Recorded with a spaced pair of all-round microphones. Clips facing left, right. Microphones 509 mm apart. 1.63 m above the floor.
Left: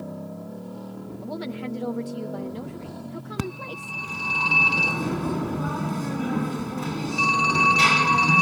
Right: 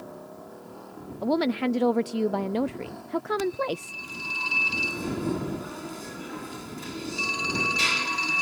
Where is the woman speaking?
85° right.